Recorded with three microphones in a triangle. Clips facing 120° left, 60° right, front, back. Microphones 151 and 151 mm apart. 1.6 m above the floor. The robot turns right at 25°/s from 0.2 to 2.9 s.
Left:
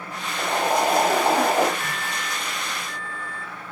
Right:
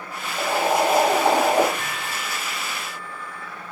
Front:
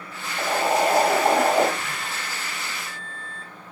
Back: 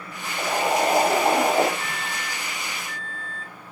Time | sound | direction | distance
0.4 | boiling | 85° right | 2.5 m
1.8 | a microwave | 55° right | 2.5 m